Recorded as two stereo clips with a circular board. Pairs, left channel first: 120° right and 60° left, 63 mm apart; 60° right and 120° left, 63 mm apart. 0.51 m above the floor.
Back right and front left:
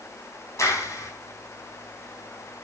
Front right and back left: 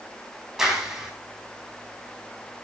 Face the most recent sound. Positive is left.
turn(degrees=-155)